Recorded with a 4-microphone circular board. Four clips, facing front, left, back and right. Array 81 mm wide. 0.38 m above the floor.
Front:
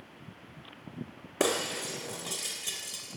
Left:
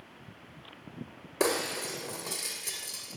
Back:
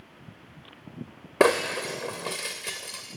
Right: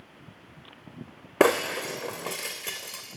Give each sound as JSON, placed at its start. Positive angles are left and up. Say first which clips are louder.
{"t": 1.4, "sound": "breaking glass", "louder": "right 8 dB, back 8 dB", "azimuth_deg": -130, "distance_m": 2.0}